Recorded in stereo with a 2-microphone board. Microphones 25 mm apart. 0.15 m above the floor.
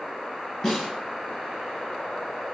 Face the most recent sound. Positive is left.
turn(degrees=0)  # may be behind; listen again after turning